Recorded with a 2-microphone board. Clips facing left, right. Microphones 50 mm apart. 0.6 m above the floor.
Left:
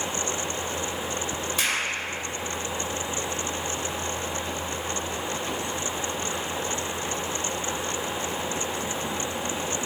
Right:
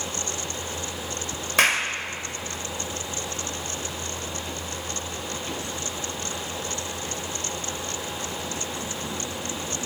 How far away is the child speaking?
No child speaking in this recording.